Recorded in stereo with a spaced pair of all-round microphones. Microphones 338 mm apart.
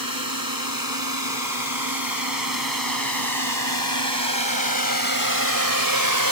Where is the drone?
85° right; by 6.3 s 80° right.